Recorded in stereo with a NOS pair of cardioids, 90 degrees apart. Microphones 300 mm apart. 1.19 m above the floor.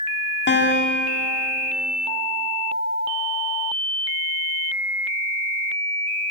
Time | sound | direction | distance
0.5 | a guitar | 40° left | 3.5 m